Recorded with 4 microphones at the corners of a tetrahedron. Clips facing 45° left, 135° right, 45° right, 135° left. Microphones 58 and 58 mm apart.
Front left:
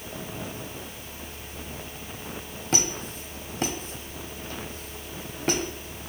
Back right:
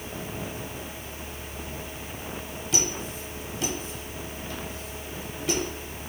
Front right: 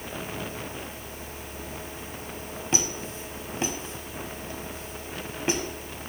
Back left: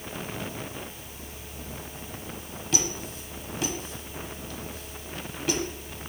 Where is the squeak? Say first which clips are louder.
Front left 2 dB, even; 10° left, 1.0 m.